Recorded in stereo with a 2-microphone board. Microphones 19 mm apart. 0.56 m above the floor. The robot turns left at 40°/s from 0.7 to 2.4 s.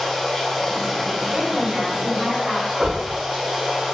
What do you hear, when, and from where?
0.0 s running water: 25° left, 1.4 m; by 3.9 s 45° right, 1.4 m
1.3 s a woman speaking: 50° right, 1.3 m; by 2.7 s 90° right, 1.3 m
2.8 s knocking: 25° right (ahead or behind), 1.0 m